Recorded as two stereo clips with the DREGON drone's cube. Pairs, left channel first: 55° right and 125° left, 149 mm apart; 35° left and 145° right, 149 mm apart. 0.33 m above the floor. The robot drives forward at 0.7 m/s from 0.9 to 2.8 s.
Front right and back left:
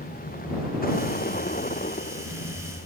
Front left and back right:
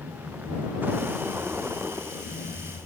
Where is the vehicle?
70° right.